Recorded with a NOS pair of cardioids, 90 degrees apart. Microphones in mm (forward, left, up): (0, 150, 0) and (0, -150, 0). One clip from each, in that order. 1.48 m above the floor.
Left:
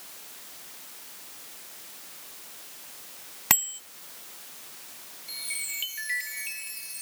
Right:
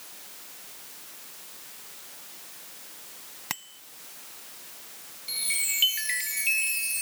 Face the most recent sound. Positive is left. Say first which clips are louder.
# right 5 dB
turn(degrees=-50)